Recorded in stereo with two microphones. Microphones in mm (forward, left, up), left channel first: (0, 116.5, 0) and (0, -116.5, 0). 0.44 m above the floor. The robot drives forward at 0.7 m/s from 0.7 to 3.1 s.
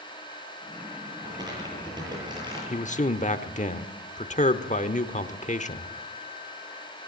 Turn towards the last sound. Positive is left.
turn(degrees=30)  # may be behind; listen again after turning